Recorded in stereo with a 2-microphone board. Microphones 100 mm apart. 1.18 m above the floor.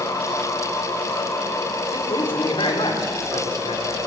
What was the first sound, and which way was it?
A man speaking, 65° left (ahead or behind).